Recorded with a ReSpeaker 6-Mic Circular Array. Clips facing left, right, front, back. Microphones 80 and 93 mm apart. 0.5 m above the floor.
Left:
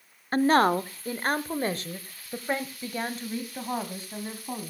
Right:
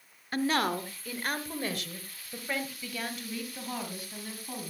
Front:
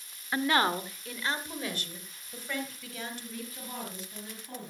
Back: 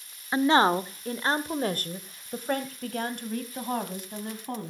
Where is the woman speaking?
120° left, 0.9 m; by 4.7 s 150° left, 3.5 m.